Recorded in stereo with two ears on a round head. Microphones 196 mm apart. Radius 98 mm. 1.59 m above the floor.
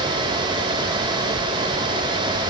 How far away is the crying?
I don't hear crying.